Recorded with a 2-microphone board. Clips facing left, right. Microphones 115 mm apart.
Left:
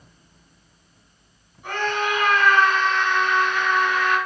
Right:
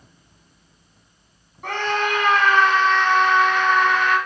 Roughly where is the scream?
Right.